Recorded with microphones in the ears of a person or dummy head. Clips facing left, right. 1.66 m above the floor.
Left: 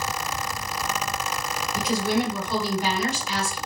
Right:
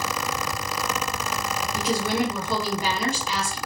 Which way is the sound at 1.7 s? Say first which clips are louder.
Left 1 dB; 75° right (ahead or behind).